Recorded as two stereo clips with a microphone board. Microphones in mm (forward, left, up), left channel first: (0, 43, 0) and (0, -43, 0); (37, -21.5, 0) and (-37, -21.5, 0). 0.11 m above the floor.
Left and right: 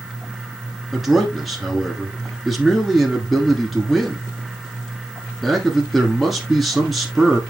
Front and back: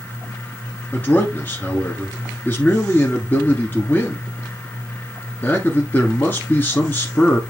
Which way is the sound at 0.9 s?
5° right.